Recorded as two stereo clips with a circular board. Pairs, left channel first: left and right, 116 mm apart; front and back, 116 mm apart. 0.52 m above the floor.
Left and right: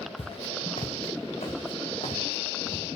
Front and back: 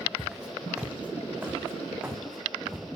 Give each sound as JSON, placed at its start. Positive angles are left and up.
{"t": 0.2, "sound": "footsteps", "azimuth_deg": 90, "distance_m": 1.0}